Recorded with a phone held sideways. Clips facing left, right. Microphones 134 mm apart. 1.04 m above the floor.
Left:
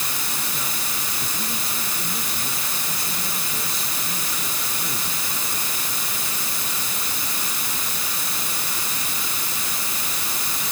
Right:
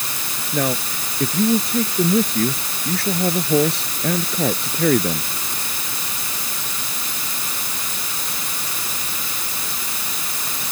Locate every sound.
0.5 s a man speaking: 65° right (ahead or behind); by 5.3 s 70° right (ahead or behind)